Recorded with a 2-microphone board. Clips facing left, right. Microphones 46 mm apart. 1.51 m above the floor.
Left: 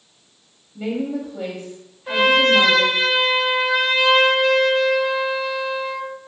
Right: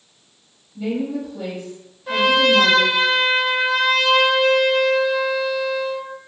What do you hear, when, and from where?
0.8 s a woman speaking: 50° left (ahead or behind), 0.8 m
2.1 s a trumpet: 10° left (ahead or behind), 0.6 m